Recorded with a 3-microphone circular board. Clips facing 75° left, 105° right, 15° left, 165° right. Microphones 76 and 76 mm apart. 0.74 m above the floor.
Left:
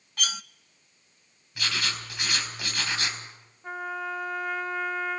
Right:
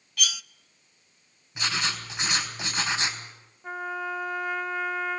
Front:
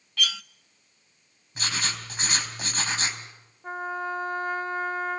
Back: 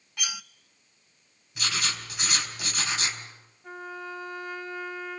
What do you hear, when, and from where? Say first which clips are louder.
0.2 s cutlery clinking: even, front 6 dB; 125° left, 0.5 m
1.6 s writing: right 2 dB, even; 35° right, 3.5 m
3.6 s a trumpet: right 1 dB, front 7 dB; 15° right, 0.8 m